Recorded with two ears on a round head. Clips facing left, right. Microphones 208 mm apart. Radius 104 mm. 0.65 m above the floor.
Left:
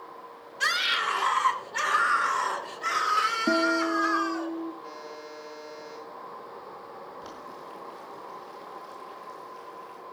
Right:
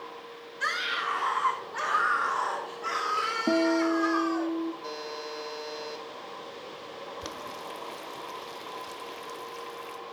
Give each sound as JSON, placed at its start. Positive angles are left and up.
{"t": 0.6, "sound": "a scream", "side_deg": 60, "distance_m": 2.5}
{"t": 3.5, "sound": "a guitar", "side_deg": 5, "distance_m": 0.7}
{"t": 4.8, "sound": "a buzzer", "side_deg": -60, "distance_m": 1.8}
{"t": 7.2, "sound": "boiling", "side_deg": -90, "distance_m": 1.2}